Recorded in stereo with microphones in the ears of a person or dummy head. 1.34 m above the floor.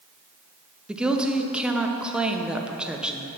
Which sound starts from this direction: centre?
A woman speaking, at 0.9 s.